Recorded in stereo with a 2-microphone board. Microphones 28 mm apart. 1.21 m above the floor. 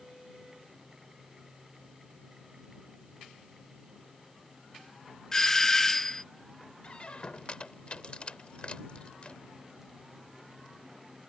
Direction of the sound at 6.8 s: 45° left (ahead or behind).